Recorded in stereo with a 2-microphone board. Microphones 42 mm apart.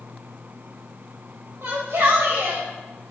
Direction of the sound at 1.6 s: 75° right (ahead or behind).